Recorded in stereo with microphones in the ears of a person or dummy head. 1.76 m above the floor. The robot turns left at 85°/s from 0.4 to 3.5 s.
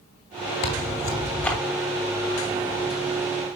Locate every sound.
0.6 s tearing paper: 85° left, 1.8 m; by 1.6 s 5° left, 1.8 m